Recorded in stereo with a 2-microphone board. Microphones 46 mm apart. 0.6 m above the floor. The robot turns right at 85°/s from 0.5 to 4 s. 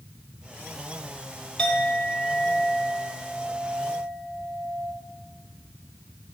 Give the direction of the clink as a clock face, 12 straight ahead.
11 o'clock.